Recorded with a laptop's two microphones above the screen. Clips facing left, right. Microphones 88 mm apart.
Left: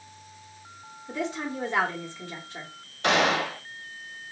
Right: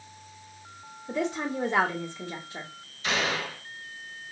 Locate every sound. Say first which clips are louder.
1.1 s a woman speaking: right 2 dB; 20° right (ahead or behind), 1.2 m
3.0 s a gunshot: left 6 dB; 65° left (ahead or behind), 1.0 m